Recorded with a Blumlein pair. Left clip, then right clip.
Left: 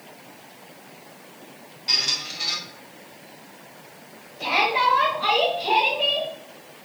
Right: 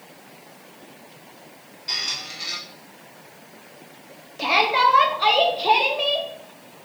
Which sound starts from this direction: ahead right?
A shout, at 4.4 s.